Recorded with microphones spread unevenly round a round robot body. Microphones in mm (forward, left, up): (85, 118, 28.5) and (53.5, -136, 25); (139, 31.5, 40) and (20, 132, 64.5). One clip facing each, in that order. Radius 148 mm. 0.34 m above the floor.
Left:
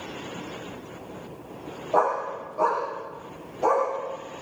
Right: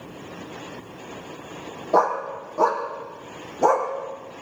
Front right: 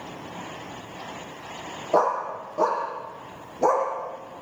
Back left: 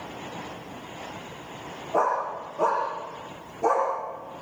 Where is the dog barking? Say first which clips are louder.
Right 3 dB, front right 3 dB; 65° right, 5.5 m; by 3.9 s 75° right, 7 m.